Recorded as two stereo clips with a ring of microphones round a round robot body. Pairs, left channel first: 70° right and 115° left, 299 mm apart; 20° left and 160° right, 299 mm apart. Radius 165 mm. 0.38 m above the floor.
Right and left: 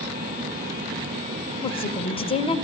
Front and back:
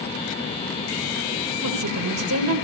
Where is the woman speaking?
135° right, 2 m.